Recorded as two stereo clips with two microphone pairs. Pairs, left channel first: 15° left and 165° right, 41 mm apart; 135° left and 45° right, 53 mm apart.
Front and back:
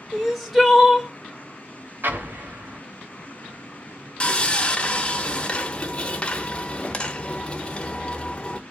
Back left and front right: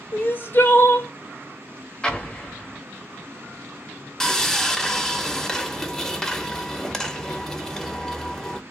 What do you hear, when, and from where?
0.1 s crying: 110° left, 0.7 m
2.0 s an explosion: 155° right, 0.7 m
4.2 s sawing: 65° left, 0.5 m